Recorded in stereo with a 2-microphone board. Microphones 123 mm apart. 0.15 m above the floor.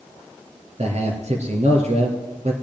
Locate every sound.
0.8 s a man speaking: 65° right (ahead or behind), 3.5 m